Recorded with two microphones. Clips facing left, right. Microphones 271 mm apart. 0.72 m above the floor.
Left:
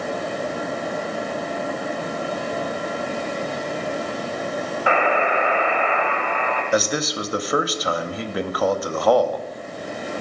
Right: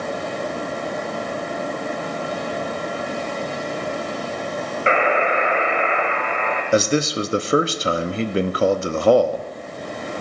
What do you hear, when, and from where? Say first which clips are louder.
4.9 s a buzzer: right 2 dB; 25° right (ahead or behind), 2.0 m
6.7 s a man speaking: right 5 dB; 30° right (ahead or behind), 0.7 m